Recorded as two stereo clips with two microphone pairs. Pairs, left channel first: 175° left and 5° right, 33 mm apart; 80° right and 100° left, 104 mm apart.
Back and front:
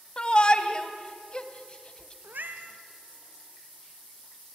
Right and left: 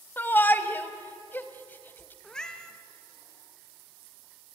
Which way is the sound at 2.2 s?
Straight ahead.